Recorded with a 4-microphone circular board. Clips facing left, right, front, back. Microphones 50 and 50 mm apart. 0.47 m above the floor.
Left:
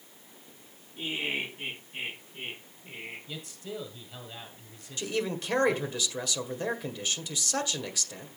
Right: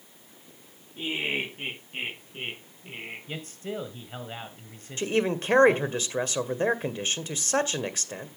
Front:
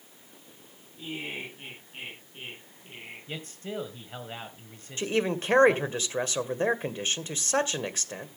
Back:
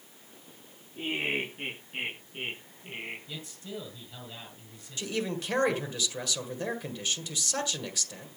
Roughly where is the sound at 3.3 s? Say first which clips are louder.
Right 4 dB, front 4 dB; ahead right.